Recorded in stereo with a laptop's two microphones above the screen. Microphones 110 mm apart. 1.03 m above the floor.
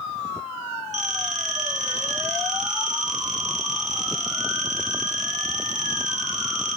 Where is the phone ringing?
80° right, 1.4 m.